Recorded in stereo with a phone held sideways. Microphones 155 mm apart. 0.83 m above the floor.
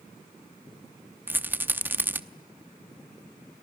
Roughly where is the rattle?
Centre.